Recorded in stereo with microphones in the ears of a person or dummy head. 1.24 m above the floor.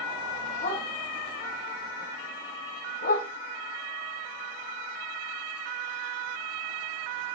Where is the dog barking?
50° left (ahead or behind), 4.5 m.